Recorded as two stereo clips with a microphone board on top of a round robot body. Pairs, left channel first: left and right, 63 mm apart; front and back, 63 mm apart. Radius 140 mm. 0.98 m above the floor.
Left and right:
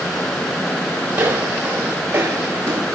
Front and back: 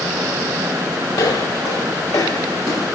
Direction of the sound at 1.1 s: 25° right.